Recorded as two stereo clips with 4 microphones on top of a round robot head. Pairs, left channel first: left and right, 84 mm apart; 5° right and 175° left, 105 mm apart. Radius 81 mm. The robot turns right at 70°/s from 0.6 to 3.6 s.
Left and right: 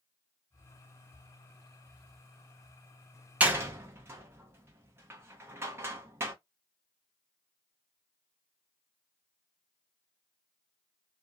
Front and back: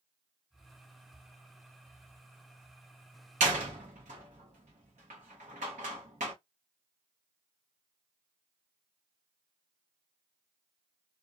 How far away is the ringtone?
I don't hear a ringtone.